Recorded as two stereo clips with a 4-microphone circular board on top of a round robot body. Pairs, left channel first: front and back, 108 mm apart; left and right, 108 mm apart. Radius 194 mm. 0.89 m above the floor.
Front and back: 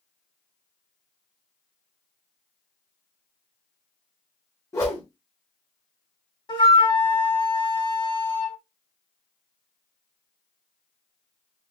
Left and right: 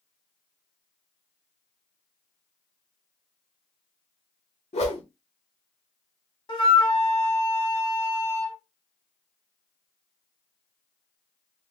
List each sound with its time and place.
4.7 s a whoosh: 60° left, 0.8 m
6.5 s a flute: 45° left, 1.9 m